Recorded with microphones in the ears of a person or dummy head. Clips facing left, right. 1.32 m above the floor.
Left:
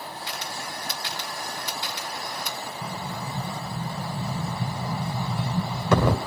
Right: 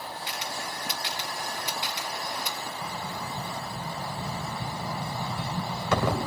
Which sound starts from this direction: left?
An explosion, at 2.8 s.